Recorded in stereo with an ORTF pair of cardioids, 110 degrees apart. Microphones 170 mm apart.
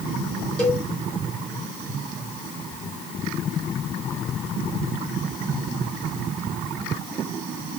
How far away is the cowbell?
About 4 m.